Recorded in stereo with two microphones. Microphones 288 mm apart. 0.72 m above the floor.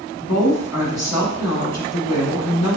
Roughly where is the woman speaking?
Left.